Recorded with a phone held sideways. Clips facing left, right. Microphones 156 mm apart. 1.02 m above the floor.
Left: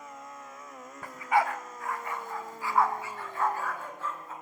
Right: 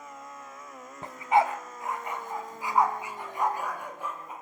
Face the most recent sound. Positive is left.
turn(degrees=-15)  # may be behind; listen again after turning